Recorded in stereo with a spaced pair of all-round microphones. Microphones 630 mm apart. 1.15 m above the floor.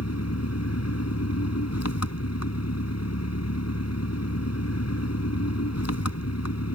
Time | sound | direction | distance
0.0 | an engine running | 25° left (ahead or behind) | ?